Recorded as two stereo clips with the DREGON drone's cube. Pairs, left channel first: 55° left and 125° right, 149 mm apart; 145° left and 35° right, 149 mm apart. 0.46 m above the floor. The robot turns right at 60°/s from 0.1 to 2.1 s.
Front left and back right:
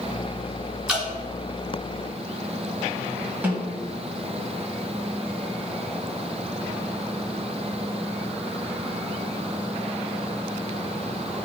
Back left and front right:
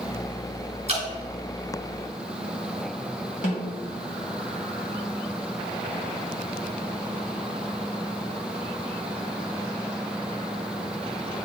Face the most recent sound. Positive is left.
turn(degrees=160)